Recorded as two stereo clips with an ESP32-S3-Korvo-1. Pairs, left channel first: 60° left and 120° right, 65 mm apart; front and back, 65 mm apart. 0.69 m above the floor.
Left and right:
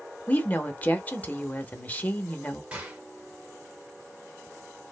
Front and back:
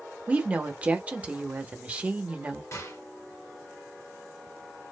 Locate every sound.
0.3 s a woman speaking: 115° left, 0.7 m
2.7 s a gunshot: 50° right, 1.0 m